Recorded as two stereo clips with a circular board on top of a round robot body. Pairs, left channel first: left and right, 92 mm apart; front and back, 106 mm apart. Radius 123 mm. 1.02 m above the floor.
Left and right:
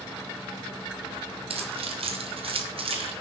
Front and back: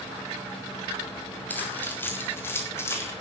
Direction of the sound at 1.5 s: 75° right.